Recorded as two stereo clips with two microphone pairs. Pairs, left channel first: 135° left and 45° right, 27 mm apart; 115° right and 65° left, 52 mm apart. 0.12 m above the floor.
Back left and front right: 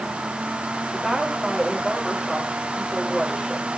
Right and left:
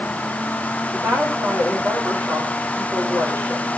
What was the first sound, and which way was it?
A woman speaking, 25° left.